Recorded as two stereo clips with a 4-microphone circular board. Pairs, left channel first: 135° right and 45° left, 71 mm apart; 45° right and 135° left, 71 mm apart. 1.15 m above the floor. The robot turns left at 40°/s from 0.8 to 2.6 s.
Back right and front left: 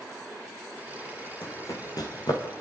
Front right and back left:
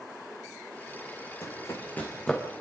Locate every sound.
1.4 s running footsteps: 85° right, 3 m; by 2.4 s 135° right, 3.5 m